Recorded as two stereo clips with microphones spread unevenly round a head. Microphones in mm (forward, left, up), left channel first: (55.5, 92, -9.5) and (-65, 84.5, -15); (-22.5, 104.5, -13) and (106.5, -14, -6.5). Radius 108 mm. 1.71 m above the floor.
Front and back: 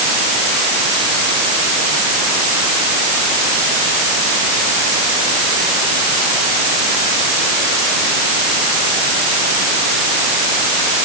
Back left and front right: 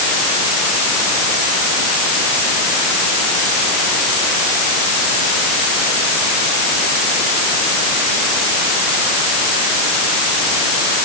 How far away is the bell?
No bell in this recording.